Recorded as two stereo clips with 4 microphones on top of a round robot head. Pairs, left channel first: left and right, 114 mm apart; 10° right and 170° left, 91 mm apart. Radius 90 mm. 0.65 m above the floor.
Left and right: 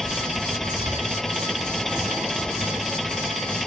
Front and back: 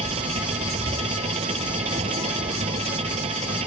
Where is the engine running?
Straight behind.